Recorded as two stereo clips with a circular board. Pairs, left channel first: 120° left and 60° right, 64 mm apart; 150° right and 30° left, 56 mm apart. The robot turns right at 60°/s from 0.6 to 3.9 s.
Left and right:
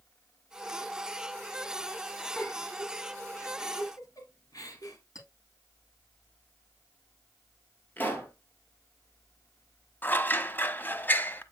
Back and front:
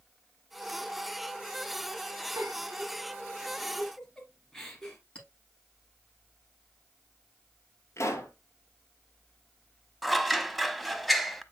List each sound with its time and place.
2.4 s a giggle: 40° left, 2.5 m; by 5.0 s 130° left, 2.5 m
5.2 s a clink: 145° left, 7.5 m
8.0 s a pop: straight behind, 2.5 m
10.0 s scissors: 120° left, 0.8 m